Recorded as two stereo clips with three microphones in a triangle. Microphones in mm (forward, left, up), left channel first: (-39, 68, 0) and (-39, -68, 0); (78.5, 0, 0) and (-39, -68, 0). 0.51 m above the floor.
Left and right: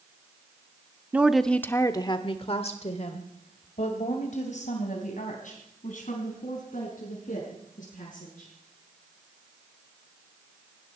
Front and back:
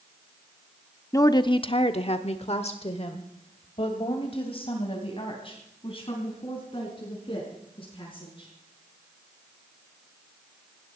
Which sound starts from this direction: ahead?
A woman speaking, at 1.1 s.